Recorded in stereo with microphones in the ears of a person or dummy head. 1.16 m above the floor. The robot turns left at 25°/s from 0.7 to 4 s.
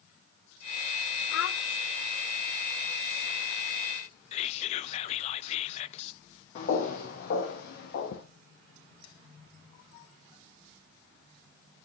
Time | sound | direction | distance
1.3 | a child speaking | 60° left (ahead or behind) | 0.7 m
4.3 | whispering | 45° left (ahead or behind) | 0.7 m
6.5 | footsteps | 35° left (ahead or behind) | 2 m